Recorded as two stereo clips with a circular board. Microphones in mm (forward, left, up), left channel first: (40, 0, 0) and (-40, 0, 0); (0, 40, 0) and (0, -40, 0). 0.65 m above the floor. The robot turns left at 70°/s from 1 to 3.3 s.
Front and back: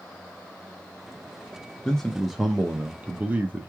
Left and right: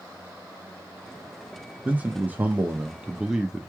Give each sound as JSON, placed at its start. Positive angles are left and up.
{"t": 1.9, "sound": "a man speaking", "azimuth_deg": -60, "distance_m": 0.8}